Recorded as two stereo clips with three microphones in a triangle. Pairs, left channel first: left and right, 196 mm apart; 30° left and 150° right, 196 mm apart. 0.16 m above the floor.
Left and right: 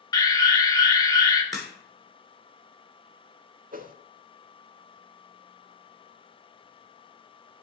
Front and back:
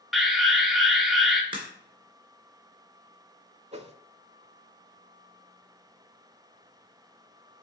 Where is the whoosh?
105° right, 0.5 m.